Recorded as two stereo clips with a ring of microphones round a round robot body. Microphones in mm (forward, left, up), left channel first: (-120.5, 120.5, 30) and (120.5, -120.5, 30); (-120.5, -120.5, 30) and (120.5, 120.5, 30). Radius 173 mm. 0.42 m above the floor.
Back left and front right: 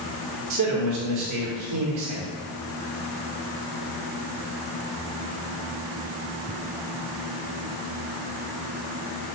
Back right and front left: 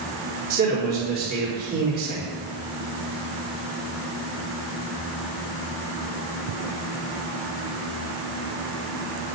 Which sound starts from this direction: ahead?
A man speaking, at 0.5 s.